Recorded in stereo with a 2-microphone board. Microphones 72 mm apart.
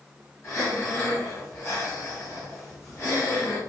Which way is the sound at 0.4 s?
40° left (ahead or behind).